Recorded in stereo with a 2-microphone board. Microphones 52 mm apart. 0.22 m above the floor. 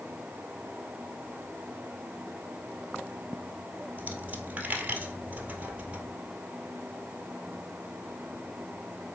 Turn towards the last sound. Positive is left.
turn(degrees=-30)  # may be behind; listen again after turning